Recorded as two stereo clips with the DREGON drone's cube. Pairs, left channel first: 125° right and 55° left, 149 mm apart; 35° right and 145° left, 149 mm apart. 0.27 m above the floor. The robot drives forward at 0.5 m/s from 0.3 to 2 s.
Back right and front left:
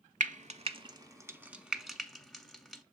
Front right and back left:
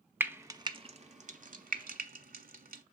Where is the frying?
70° left, 0.6 m; by 2.8 s 145° left, 0.9 m.